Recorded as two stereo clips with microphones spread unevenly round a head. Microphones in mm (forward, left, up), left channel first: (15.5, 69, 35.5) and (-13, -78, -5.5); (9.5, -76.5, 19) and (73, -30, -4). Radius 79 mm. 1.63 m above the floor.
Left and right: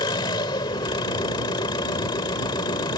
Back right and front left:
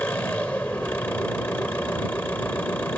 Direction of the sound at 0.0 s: 140° left.